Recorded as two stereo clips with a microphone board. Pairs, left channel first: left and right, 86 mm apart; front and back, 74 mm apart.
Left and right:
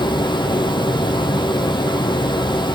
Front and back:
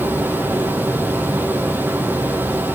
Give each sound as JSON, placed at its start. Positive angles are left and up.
{"t": 0.0, "sound": "running water", "azimuth_deg": 115, "distance_m": 3.0}